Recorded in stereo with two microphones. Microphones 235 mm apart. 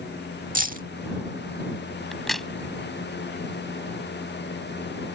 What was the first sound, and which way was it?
Keys jangling, 35° right (ahead or behind).